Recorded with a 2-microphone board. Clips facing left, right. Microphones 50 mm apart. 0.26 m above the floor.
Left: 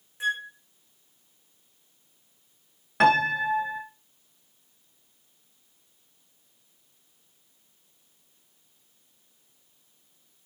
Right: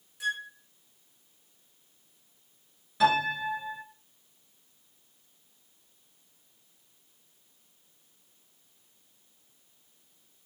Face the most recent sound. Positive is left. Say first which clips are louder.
# left 4 dB
turn(degrees=60)  # may be behind; listen again after turning